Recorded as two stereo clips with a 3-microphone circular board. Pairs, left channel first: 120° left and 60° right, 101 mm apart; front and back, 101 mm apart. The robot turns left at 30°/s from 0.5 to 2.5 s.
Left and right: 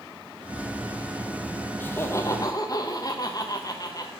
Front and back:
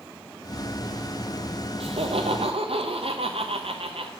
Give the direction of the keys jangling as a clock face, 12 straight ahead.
I don't hear keys jangling.